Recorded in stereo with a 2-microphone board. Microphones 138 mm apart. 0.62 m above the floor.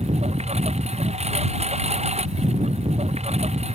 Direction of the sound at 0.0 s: 50° right (ahead or behind).